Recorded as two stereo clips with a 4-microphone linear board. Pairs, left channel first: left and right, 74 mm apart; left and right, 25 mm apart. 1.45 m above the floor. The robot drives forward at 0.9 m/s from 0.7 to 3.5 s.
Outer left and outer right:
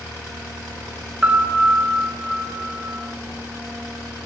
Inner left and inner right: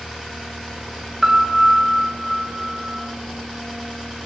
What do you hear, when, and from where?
1.2 s a piano: 20° right (ahead or behind), 0.7 m; by 3.0 s 5° right (ahead or behind), 2 m